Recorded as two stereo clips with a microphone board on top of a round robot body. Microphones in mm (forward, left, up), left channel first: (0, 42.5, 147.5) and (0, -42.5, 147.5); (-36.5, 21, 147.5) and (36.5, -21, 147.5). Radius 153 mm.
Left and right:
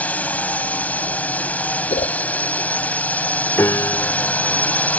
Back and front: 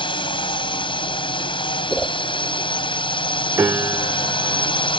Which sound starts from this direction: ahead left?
A piano, at 3.6 s.